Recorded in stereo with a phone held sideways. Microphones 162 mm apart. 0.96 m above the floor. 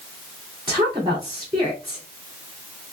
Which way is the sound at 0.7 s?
30° right (ahead or behind).